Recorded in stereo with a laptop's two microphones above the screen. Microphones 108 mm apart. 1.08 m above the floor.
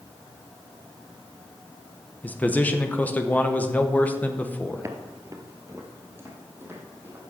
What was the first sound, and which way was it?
A man speaking, 15° left (ahead or behind).